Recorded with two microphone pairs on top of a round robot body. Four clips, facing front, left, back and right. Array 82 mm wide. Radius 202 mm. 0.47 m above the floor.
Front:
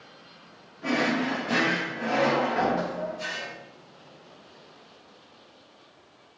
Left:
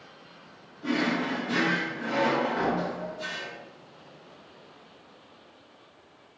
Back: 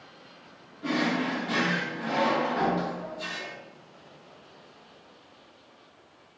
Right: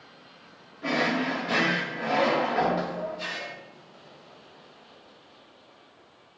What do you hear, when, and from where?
0.8 s a drawer: 70° right, 2 m